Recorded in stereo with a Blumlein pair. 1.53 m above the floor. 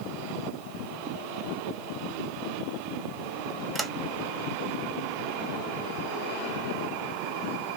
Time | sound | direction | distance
3.8 | a sliding door | 10° right | 0.7 m